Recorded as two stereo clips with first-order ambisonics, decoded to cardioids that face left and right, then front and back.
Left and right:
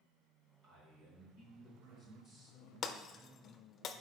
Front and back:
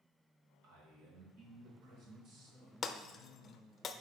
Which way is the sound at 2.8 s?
50° left.